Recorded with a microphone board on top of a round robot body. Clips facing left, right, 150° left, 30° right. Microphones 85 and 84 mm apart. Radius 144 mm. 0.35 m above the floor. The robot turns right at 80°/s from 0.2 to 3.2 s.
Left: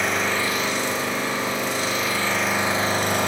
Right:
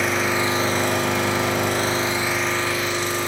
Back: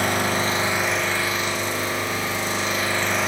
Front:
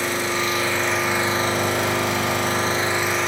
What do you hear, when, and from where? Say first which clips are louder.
0.0 s an engine running: right 2 dB, back 1 dB; straight behind, 3 m; by 3.3 s 60° left, 3 m